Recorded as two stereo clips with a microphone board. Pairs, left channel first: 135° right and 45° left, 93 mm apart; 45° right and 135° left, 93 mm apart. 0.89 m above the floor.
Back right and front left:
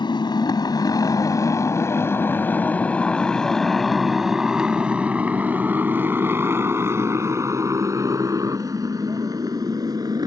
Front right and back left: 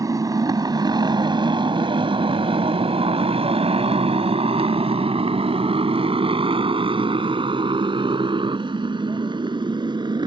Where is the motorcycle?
170° right; by 10.3 s 95° left.